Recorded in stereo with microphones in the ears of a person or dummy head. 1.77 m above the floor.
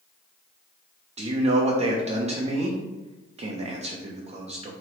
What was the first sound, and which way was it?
A man speaking, 30° right (ahead or behind).